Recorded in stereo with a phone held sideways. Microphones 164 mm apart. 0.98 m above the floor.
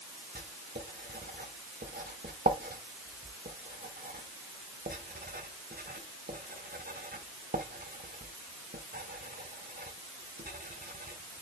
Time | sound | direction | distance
0.3 | writing | 65° right (ahead or behind) | 1.4 m